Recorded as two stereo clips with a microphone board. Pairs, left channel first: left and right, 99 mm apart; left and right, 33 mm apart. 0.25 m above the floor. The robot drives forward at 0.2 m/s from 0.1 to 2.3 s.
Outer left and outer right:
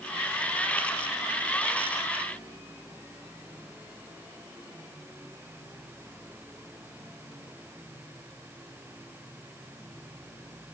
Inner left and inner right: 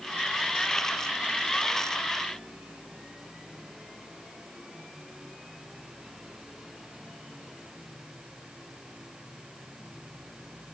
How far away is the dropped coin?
No dropped coin in this recording.